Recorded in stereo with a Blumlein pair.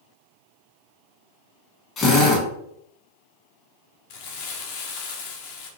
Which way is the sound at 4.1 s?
45° left.